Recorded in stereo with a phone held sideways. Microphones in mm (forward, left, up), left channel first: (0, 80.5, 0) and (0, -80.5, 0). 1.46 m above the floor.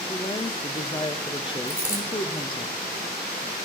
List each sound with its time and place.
0.1 s a woman speaking: 30° left (ahead or behind), 1.1 m
1.7 s a dropped coin: 55° right (ahead or behind), 4.5 m